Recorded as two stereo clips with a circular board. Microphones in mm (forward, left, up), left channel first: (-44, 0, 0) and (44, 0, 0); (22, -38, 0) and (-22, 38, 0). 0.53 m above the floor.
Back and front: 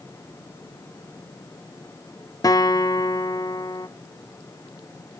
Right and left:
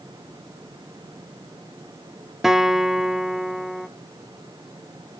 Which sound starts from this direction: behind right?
A guitar, at 2.4 s.